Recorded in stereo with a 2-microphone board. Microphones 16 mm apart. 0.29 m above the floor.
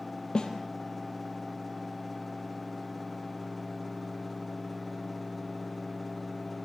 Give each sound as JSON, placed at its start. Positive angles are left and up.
{"t": 0.3, "sound": "a snare drum", "side_deg": 60, "distance_m": 3.0}